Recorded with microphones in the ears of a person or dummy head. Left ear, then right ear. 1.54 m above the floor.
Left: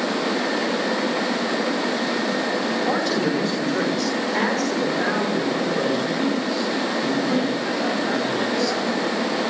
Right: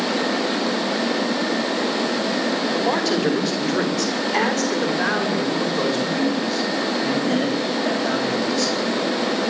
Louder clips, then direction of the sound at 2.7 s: Right 2 dB; 30° right (ahead or behind).